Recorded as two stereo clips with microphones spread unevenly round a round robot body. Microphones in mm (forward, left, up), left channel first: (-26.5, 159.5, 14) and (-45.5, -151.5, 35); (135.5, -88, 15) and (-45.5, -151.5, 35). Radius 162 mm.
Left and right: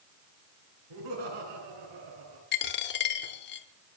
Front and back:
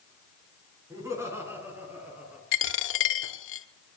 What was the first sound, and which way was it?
Laughter, 85° right.